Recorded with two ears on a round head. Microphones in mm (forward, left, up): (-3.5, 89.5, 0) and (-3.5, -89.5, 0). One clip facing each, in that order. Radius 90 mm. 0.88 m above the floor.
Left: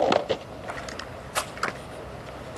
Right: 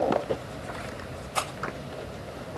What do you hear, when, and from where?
1.4 s a rattle: 15° left (ahead or behind), 2.0 m